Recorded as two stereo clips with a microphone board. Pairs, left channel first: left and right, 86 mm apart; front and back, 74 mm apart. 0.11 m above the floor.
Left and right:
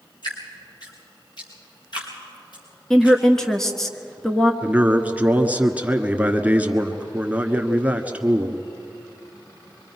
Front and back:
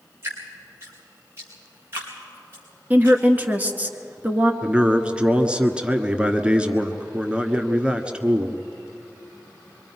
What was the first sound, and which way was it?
Dripping, 120° left.